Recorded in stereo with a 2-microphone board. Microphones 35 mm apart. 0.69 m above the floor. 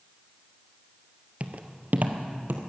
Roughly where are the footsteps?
Right.